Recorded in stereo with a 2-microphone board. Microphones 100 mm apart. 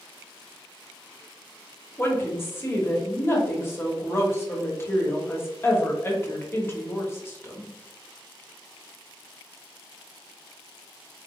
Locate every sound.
2.0 s a woman speaking: 25° left (ahead or behind), 1.1 m